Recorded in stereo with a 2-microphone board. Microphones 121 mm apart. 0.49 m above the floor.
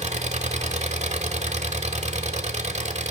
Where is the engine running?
70° right (ahead or behind), 1.0 m.